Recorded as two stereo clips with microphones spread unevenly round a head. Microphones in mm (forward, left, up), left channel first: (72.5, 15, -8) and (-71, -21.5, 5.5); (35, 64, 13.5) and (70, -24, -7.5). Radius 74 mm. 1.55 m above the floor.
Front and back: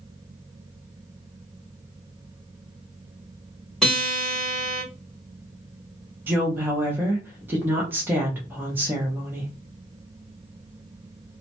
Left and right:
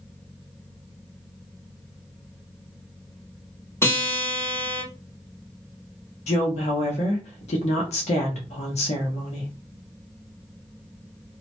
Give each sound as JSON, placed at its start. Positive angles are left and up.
{"t": 3.8, "sound": "a guitar", "azimuth_deg": 105, "distance_m": 1.5}
{"t": 6.3, "sound": "a woman speaking", "azimuth_deg": 115, "distance_m": 0.6}